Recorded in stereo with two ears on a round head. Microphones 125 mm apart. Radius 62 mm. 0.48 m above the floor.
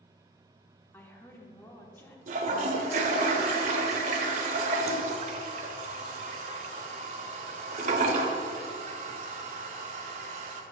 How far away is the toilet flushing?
About 0.8 m.